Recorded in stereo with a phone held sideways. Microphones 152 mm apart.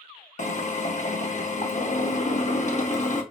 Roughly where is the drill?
Left.